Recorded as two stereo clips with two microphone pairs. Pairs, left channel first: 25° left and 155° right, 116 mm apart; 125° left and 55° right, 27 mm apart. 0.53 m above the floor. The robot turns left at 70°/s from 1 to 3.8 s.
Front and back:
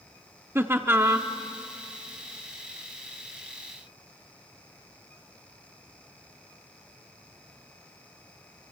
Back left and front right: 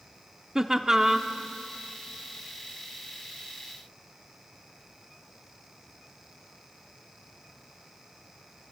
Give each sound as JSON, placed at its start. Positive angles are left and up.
{"t": 0.6, "sound": "laughter", "azimuth_deg": -105, "distance_m": 0.7}